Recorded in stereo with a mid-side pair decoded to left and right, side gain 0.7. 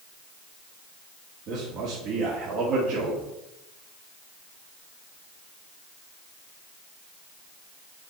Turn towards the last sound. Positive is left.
turn(degrees=-50)